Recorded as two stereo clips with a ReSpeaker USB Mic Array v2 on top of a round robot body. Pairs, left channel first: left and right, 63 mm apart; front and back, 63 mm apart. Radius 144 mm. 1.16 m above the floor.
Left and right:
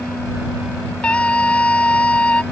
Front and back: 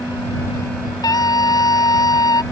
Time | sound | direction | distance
1.0 | a scream | 15° left | ?